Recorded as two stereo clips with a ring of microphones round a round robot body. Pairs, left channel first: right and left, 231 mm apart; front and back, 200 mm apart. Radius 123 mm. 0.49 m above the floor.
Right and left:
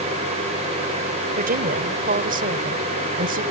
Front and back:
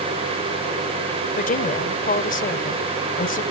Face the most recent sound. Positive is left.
turn(degrees=40)